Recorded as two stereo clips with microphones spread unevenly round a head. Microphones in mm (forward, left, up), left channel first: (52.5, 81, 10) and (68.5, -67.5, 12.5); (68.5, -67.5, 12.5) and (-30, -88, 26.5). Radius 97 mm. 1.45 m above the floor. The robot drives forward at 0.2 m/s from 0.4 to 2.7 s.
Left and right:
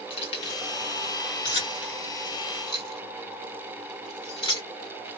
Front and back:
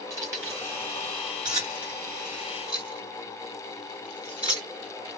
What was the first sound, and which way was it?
Keys jangling, 140° left.